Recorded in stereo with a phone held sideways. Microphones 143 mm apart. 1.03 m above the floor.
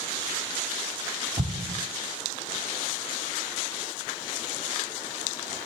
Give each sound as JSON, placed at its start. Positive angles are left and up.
{"t": 1.4, "sound": "an explosion", "side_deg": -60, "distance_m": 0.9}